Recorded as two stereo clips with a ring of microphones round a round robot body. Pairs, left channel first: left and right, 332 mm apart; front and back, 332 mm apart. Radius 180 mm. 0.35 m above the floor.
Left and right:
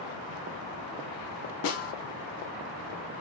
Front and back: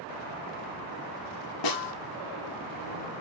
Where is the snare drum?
35° left, 0.8 m.